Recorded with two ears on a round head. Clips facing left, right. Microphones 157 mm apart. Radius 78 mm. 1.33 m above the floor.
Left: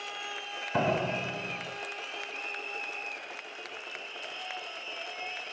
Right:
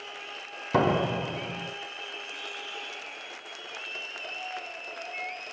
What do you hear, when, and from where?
0.7 s a door slam: 75° right (ahead or behind), 3.5 m